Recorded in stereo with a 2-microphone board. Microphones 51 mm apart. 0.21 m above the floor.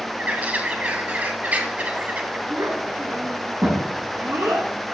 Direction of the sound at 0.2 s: 35° right (ahead or behind).